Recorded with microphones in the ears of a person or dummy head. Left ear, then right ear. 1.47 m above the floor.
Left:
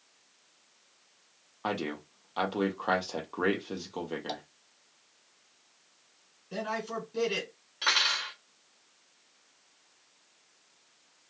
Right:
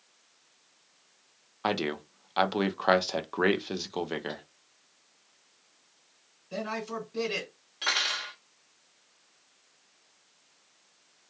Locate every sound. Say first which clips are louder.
1.6 s a man speaking: right 4 dB; 30° right (ahead or behind), 0.5 m
4.3 s tapping: left 2 dB; 60° left (ahead or behind), 0.9 m
6.5 s a man speaking: even; 15° left (ahead or behind), 1.5 m
7.8 s cutlery clinking: left 2 dB; 5° left (ahead or behind), 1.4 m